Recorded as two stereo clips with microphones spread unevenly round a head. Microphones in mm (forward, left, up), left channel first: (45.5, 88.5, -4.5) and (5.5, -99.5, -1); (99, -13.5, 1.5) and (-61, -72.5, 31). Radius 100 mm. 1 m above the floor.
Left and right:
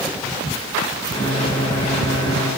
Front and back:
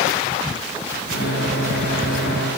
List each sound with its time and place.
1.1 s a microwave: 15° left, 1.7 m